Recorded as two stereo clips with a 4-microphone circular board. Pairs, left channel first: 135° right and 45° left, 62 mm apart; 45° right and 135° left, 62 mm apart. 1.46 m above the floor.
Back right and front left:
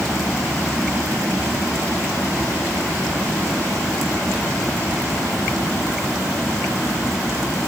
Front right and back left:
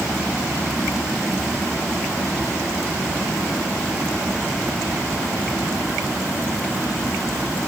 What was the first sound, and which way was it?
Only background noise.